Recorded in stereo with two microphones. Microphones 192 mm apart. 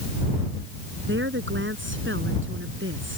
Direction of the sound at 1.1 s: 75° right (ahead or behind).